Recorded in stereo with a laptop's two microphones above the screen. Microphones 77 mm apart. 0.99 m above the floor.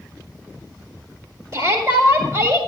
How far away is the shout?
About 2 m.